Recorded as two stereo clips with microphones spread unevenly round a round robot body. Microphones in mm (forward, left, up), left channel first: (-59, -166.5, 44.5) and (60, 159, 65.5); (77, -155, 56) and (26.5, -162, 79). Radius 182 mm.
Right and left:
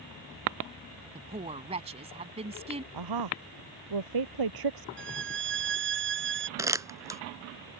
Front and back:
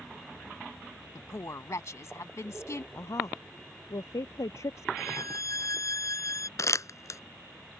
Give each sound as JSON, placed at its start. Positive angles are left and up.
{"t": 1.1, "sound": "a woman speaking", "azimuth_deg": -5}
{"t": 2.9, "sound": "a woman speaking", "azimuth_deg": 45}
{"t": 5.0, "sound": "a violin", "azimuth_deg": 10}
{"t": 6.6, "sound": "crumpling", "azimuth_deg": -10}